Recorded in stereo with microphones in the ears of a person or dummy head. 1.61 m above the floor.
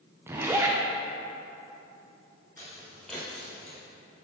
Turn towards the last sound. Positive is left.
turn(degrees=5)  # may be behind; listen again after turning